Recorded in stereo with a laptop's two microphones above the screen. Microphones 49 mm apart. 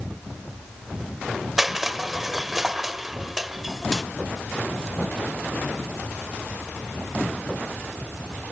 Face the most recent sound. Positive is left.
turn(degrees=-5)  # may be behind; listen again after turning